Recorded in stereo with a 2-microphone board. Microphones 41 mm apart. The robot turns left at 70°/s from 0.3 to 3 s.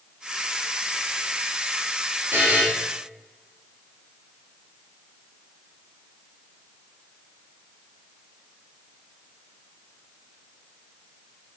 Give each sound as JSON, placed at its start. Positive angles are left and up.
{"t": 2.3, "sound": "a buzzer", "side_deg": -55, "distance_m": 3.0}